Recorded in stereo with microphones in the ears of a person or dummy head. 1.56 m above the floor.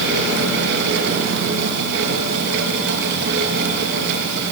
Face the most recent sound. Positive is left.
turn(degrees=-60)  # may be behind; listen again after turning